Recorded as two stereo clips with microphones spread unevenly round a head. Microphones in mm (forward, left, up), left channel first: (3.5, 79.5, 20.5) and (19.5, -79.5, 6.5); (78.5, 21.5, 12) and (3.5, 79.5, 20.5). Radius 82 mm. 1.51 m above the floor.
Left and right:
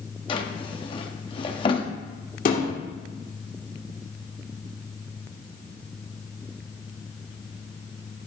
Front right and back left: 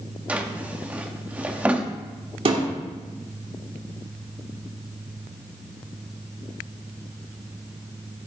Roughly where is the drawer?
Left.